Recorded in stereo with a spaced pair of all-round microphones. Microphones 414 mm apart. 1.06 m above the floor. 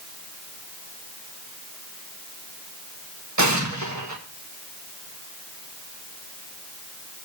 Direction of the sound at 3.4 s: 45° right (ahead or behind).